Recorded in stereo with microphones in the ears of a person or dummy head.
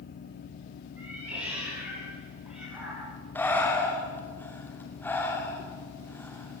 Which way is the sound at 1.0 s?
10° right (ahead or behind).